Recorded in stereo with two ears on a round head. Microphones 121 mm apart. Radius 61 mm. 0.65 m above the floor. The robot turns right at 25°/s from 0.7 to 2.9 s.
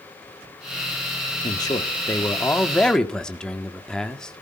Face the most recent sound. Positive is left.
turn(degrees=175)